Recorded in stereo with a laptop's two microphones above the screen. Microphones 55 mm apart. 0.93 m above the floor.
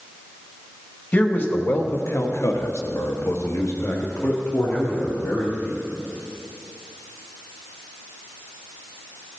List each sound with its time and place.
1.1 s a man speaking: 30° left (ahead or behind), 1.7 m; by 5.8 s 35° left (ahead or behind), 2.5 m